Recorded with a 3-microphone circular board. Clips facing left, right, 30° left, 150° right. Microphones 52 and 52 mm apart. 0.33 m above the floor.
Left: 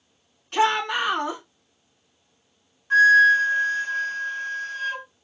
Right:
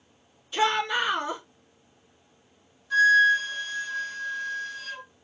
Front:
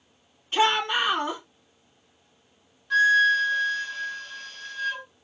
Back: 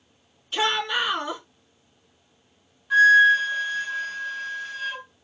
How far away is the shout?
About 3 m.